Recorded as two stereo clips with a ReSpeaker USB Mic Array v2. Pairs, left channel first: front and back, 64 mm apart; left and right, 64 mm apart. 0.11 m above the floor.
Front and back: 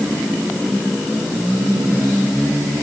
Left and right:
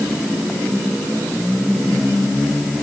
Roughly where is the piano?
I don't hear a piano.